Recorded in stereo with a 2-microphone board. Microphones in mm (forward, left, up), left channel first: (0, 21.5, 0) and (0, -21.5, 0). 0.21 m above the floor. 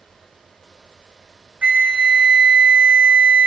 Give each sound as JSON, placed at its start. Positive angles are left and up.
{"t": 1.6, "sound": "a flute", "side_deg": -35, "distance_m": 0.6}